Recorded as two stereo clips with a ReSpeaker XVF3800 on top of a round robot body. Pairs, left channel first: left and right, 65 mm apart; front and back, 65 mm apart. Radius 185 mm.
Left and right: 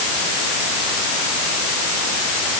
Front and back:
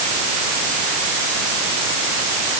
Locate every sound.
Only background noise.